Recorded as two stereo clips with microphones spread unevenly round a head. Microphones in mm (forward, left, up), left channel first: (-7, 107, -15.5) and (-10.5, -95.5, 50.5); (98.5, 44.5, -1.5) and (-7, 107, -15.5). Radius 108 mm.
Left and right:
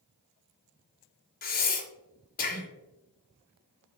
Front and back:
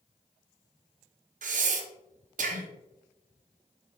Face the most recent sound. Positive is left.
turn(degrees=135)